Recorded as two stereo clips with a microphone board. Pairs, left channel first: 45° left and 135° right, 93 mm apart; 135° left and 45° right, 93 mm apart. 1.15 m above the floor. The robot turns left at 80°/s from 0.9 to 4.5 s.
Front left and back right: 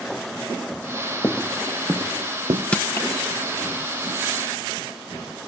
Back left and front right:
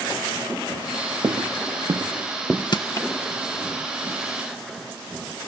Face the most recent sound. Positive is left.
turn(degrees=-25)